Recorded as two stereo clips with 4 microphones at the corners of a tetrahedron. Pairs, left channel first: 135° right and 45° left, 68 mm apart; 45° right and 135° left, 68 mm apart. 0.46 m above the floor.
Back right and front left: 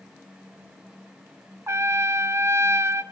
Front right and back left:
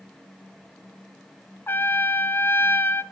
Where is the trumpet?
5° left, 0.6 m.